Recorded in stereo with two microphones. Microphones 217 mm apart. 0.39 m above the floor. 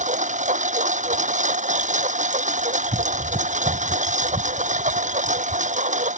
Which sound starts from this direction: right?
A lawn mower, at 0.0 s.